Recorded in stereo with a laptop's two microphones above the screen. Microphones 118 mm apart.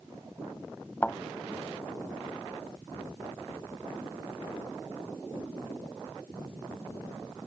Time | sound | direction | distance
1.0 | a thud | 10° left (ahead or behind) | ?